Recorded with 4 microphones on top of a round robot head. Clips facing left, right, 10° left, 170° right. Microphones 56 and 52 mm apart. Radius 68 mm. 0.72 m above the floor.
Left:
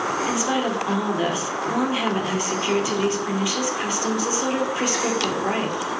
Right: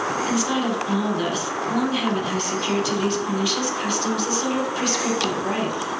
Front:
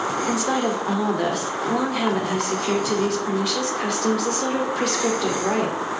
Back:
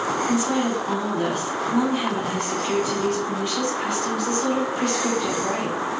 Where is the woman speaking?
20° left, 2.5 m.